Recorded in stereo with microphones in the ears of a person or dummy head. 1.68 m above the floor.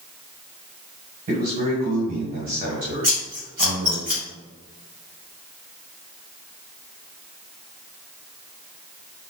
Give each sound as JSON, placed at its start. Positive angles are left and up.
{"t": 1.3, "sound": "a man speaking", "side_deg": -50, "distance_m": 1.7}
{"t": 3.0, "sound": "scissors", "side_deg": -30, "distance_m": 1.0}